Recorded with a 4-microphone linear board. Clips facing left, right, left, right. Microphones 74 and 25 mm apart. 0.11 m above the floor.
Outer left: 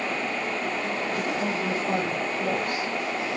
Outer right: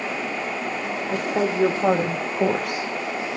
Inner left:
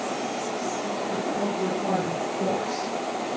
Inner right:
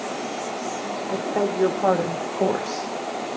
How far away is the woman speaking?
About 7.5 m.